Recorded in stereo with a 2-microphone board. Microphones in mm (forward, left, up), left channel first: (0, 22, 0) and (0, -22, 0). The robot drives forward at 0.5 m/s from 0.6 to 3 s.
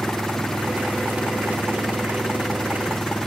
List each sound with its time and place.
0.0 s an engine running: 5° left (ahead or behind); by 3.3 s 10° left (ahead or behind)